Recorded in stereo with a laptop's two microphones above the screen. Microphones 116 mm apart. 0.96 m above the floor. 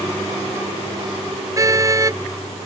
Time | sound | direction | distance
1.6 | a car horn | 30° right (ahead or behind) | ?